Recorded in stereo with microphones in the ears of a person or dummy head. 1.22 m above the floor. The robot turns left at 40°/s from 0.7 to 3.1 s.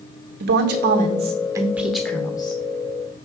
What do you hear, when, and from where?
0.4 s a woman speaking: 130° right, 1.2 m; by 2.6 s 155° left, 1.2 m